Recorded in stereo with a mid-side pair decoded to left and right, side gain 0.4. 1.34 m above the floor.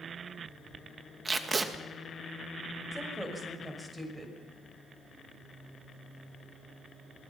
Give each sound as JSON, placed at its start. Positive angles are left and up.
{"t": 1.2, "sound": "tape being pulled", "azimuth_deg": -35, "distance_m": 2.0}
{"t": 2.9, "sound": "a woman speaking", "azimuth_deg": -10, "distance_m": 6.5}